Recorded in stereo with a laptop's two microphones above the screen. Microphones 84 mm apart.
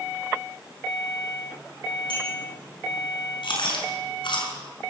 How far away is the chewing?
About 6 m.